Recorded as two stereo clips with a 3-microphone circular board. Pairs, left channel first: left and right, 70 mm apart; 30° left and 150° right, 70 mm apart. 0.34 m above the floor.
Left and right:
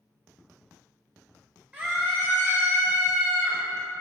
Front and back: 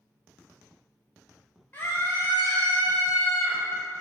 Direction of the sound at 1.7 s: Straight ahead.